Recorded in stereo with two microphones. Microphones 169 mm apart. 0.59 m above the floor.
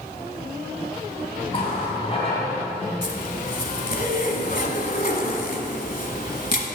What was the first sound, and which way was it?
A running tap, 35° left (ahead or behind).